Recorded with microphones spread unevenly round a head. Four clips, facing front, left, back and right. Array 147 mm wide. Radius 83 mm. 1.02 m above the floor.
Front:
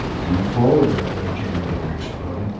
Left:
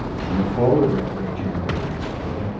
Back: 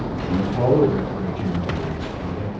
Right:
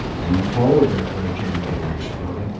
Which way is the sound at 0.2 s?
65° right.